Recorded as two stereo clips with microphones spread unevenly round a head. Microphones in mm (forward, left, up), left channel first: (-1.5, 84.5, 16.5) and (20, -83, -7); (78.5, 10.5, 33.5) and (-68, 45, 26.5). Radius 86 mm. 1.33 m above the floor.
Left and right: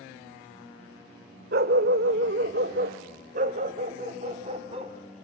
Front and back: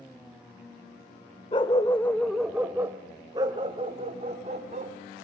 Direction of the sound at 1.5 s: 65° right.